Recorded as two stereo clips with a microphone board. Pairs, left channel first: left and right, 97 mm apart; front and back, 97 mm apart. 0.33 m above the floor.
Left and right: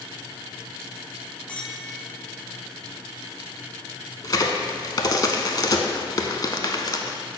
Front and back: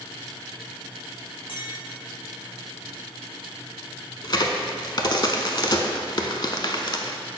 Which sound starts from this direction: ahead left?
A crack, at 4.2 s.